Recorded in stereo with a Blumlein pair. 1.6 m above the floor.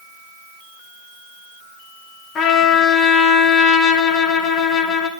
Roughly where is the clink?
I don't hear a clink.